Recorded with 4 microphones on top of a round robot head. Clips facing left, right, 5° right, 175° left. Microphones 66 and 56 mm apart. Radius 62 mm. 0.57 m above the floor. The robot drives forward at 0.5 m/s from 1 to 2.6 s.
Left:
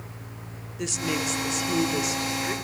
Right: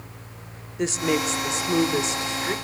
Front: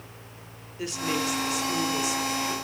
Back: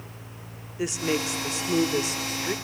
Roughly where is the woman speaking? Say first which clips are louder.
Right 5 dB, back 2 dB; behind right.